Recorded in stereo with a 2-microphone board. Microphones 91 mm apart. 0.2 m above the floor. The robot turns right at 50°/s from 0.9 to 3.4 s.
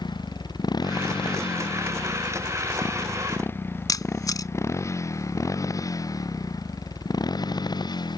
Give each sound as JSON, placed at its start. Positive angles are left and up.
{"t": 0.0, "sound": "a motorcycle", "side_deg": 55}
{"t": 3.9, "sound": "a camera shutter", "side_deg": 45}